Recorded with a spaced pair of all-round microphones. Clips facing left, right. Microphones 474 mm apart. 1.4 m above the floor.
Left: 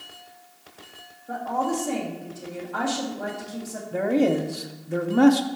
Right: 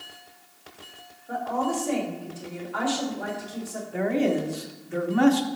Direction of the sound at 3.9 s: 60° left (ahead or behind).